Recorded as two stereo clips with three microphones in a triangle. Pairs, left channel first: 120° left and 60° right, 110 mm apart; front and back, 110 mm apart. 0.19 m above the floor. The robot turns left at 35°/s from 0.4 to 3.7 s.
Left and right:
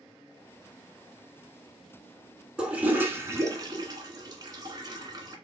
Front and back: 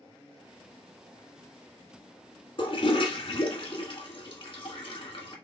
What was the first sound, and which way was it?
A toilet flushing, 20° left.